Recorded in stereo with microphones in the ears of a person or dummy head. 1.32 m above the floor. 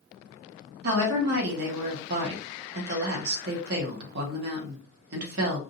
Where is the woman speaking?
65° right (ahead or behind), 1.3 m.